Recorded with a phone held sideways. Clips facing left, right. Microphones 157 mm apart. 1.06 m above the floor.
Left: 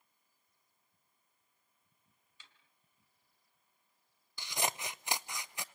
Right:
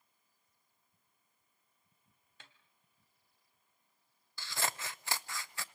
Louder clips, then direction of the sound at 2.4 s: Right 4 dB; 60° right (ahead or behind).